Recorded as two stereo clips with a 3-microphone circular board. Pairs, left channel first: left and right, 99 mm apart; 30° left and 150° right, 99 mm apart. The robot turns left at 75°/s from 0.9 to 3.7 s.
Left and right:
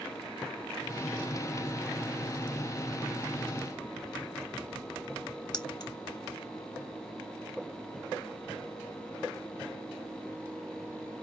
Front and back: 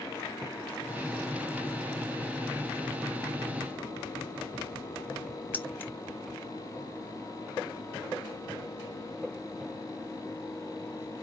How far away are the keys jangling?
About 0.6 m.